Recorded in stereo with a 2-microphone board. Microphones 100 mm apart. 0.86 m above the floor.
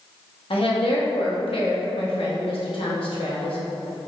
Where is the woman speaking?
70° left (ahead or behind), 1.1 m.